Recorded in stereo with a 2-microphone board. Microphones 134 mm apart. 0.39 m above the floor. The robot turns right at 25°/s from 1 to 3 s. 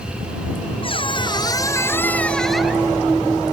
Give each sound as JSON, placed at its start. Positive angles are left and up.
{"t": 0.8, "sound": "a squeak", "azimuth_deg": 140}